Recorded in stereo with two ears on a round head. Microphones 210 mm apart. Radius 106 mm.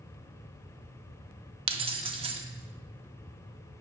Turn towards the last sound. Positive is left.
turn(degrees=-25)  # may be behind; listen again after turning